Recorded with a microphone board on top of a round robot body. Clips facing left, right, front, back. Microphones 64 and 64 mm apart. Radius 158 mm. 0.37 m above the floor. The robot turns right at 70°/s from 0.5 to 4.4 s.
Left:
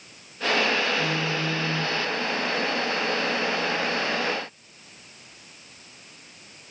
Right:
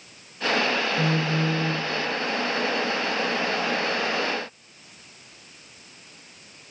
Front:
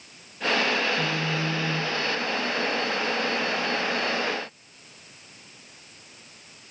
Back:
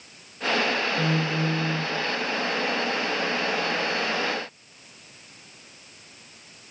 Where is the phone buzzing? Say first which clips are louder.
Right 2 dB, back 2 dB; 130° right, 1.3 m; by 1.9 s 65° right, 1.3 m.